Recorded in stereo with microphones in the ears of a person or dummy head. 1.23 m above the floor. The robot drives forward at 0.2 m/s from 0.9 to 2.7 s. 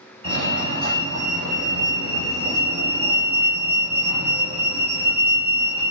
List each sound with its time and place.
0.2 s a fire alarm: 25° right (ahead or behind), 2 m; by 5.9 s 20° right (ahead or behind), 2.5 m